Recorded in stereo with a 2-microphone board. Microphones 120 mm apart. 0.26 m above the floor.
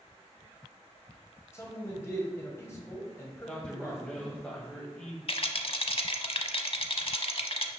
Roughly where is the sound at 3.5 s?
Centre.